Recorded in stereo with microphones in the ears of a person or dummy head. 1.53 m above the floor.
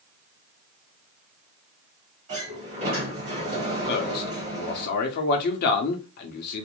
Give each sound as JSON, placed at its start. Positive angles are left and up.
{"t": 2.3, "sound": "a sliding door", "side_deg": -35, "distance_m": 1.1}
{"t": 3.9, "sound": "a man speaking", "side_deg": 50, "distance_m": 0.7}